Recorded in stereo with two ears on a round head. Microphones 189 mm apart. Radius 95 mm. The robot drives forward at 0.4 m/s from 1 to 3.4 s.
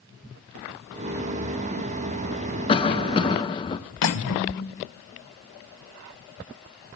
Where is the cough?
25° left (ahead or behind), 0.8 m.